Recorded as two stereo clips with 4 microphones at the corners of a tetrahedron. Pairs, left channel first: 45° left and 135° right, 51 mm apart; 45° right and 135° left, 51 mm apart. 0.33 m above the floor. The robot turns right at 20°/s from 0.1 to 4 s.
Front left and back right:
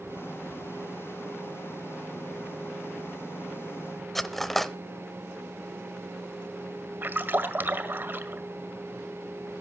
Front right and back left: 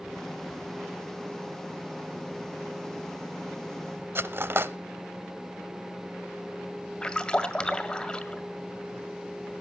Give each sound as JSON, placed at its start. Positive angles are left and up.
{"t": 4.2, "sound": "cutlery clinking", "azimuth_deg": 130, "distance_m": 0.8}
{"t": 7.0, "sound": "a splash", "azimuth_deg": -110, "distance_m": 1.8}